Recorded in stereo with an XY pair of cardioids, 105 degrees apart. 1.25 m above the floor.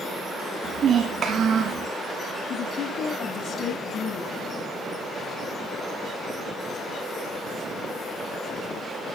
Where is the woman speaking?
70° left, 1.8 m.